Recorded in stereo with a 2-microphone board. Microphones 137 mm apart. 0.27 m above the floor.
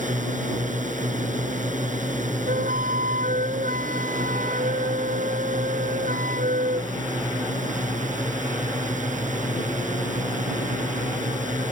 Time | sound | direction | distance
0.0 | a drone | 65° right (ahead or behind) | ?
2.5 | a flute | 80° right | ?